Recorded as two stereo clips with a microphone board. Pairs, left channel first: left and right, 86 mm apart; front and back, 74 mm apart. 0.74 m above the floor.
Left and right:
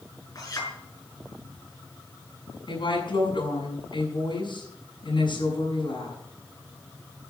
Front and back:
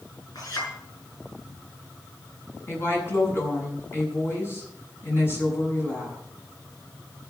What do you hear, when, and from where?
0.3 s a clink: 40° left, 6.5 m
2.7 s a woman speaking: 60° left, 6.5 m